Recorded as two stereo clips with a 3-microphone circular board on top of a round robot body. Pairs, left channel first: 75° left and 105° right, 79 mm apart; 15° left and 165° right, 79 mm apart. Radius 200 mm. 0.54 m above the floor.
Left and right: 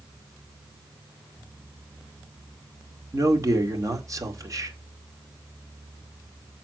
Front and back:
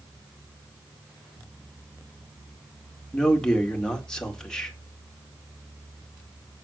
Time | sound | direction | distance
3.1 | a man speaking | 65° right | 2 m